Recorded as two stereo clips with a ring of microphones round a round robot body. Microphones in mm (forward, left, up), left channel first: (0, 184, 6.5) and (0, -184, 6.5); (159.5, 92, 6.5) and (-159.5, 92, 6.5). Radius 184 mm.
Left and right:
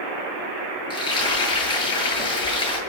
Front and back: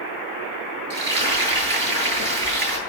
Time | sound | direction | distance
0.9 | frying | 170° left | 8.5 m